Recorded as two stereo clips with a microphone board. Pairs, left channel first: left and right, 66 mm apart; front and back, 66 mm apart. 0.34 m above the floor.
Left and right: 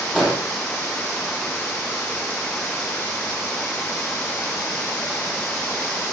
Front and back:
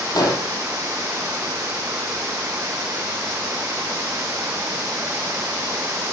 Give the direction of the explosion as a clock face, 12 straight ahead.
12 o'clock.